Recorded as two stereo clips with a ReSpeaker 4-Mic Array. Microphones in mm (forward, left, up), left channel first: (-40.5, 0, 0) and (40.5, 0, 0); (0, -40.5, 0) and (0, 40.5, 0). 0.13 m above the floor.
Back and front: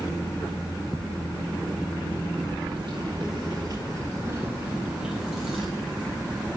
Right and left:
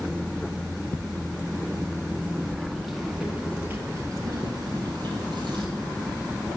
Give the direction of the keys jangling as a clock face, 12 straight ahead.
12 o'clock.